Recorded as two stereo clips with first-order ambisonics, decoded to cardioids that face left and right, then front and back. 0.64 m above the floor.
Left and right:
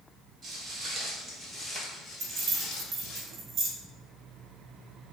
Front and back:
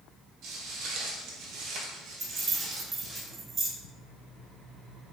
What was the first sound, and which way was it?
Footsteps, 150° right.